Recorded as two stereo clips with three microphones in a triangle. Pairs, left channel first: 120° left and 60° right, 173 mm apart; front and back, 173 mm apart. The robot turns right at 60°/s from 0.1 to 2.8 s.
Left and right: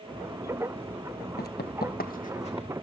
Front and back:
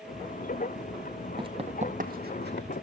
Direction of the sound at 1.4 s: 125° left.